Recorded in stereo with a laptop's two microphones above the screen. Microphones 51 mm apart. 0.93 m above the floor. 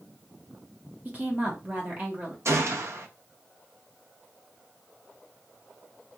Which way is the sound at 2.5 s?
55° right (ahead or behind).